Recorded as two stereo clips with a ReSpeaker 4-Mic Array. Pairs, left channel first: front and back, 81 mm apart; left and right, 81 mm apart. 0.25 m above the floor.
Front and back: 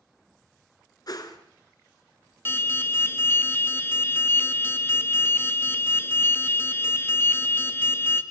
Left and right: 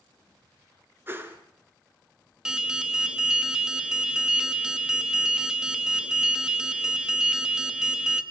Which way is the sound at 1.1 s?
30° right.